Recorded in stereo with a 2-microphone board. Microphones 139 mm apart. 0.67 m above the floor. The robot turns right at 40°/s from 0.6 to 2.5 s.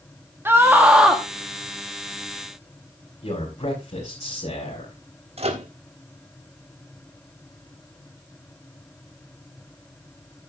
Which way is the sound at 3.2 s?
55° left (ahead or behind).